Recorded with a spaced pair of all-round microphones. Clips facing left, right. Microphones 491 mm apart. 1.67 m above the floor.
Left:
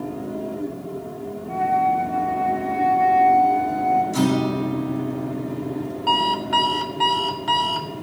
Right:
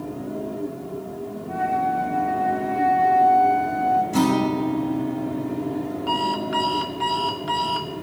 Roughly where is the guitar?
Right.